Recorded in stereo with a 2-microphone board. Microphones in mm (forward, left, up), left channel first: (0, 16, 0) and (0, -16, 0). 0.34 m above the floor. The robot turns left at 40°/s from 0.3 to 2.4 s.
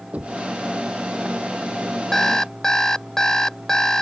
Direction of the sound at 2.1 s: 10° left (ahead or behind).